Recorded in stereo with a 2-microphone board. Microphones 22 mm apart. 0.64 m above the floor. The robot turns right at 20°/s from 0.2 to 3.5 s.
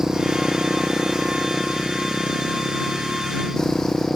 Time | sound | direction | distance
0.0 | a motorcycle | 35° right | ?